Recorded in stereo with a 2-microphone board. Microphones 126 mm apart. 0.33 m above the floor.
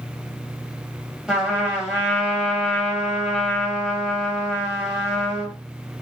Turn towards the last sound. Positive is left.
turn(degrees=-5)  # may be behind; listen again after turning